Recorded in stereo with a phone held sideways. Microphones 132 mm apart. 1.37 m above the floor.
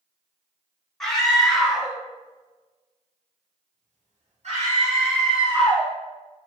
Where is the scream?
5° left (ahead or behind), 1.4 m; by 5.9 s 40° right (ahead or behind), 1.6 m.